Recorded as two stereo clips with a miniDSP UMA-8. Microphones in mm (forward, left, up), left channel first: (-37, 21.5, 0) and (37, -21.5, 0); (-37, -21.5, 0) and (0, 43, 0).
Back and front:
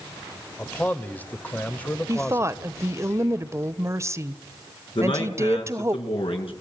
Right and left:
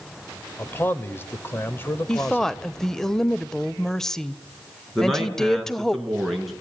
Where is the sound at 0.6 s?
155° right, 1.5 m.